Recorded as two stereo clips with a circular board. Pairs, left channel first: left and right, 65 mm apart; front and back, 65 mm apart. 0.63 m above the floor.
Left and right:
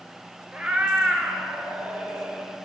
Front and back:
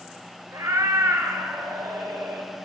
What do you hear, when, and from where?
0.5 s a cat meowing: 160° right, 1.6 m